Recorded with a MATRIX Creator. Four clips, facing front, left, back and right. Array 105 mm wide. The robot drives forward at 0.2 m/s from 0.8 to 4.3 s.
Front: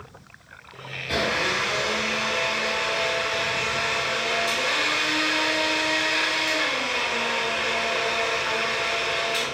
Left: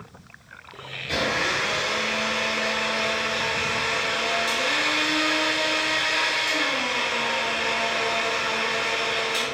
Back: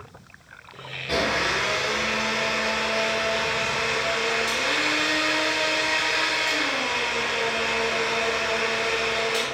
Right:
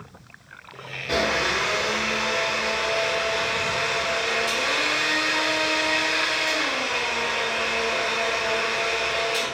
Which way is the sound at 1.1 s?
125° right.